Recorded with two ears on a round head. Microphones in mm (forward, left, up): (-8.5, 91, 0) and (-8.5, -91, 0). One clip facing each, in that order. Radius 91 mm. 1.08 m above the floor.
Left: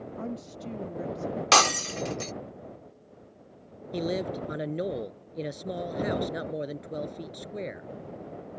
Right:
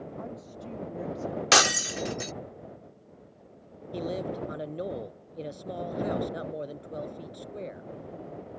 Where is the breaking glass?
15° right (ahead or behind).